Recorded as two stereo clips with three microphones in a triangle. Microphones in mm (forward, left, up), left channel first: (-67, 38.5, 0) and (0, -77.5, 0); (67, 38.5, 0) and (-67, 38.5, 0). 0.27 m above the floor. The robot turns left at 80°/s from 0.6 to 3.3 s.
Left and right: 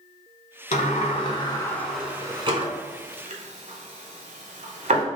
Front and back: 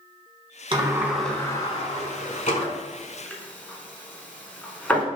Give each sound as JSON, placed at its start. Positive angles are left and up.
{"t": 0.7, "sound": "a sliding door", "azimuth_deg": 130, "distance_m": 0.9}